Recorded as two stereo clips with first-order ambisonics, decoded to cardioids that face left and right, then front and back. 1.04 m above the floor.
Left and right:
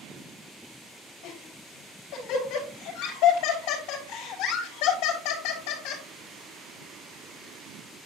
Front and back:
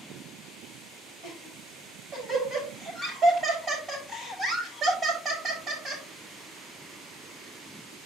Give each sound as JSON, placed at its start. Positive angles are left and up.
{"t": 1.2, "sound": "laughter", "azimuth_deg": 115, "distance_m": 5.5}